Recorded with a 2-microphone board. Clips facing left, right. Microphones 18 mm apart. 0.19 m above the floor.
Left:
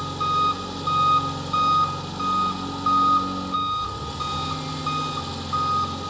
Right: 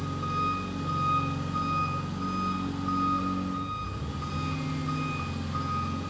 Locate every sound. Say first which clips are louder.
0.0 s an engine running: left 8 dB; 65° left (ahead or behind), 2.5 m